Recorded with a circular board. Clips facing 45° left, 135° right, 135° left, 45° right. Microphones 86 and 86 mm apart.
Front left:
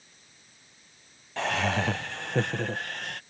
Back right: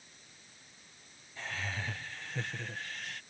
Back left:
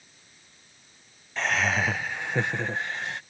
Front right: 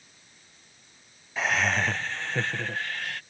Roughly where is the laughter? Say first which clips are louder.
Front left 13 dB, even; ahead left.